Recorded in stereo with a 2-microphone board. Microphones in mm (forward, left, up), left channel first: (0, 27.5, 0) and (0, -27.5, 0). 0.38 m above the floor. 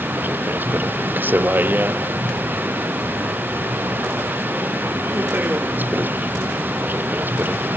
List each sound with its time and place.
0.0 s a vehicle: 40° right (ahead or behind)